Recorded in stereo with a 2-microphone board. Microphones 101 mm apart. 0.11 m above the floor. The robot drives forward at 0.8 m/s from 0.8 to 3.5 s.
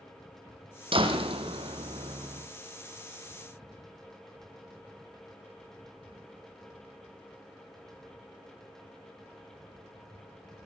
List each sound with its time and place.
0.9 s a door slam: 60° right (ahead or behind), 3.5 m; by 2.5 s 75° right (ahead or behind), 3 m